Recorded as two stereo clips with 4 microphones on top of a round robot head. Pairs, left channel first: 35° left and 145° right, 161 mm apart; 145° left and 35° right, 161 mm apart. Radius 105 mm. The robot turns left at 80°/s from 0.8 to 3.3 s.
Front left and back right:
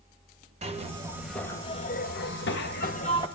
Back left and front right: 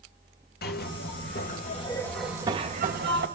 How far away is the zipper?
About 2 m.